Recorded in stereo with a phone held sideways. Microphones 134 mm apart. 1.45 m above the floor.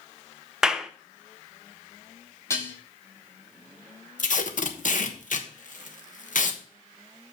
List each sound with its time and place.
0.6 s a clap: 5° right (ahead or behind), 0.7 m
2.5 s dishes clattering: 20° left (ahead or behind), 3 m
4.2 s tape being pulled: 65° left (ahead or behind), 1.1 m